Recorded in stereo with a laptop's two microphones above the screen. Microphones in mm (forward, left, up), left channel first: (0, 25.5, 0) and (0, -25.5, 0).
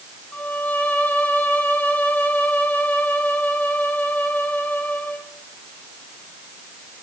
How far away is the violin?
About 2.0 m.